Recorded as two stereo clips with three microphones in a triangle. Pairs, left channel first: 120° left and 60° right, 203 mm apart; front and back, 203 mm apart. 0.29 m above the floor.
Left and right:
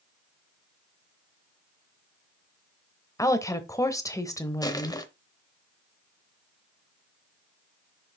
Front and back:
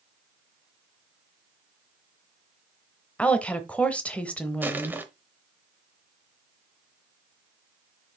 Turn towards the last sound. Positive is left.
turn(degrees=120)